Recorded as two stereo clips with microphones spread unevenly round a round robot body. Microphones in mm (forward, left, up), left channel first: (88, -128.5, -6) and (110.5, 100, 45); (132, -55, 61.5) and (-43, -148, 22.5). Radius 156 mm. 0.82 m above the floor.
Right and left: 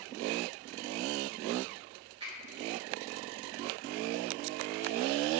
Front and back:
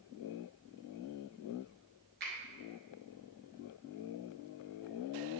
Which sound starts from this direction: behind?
A finger snap, at 2.2 s.